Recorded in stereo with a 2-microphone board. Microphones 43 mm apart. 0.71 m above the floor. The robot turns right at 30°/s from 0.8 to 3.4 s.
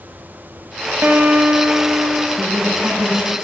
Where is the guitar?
100° right, 1.2 m; by 2.3 s 60° right, 1.2 m.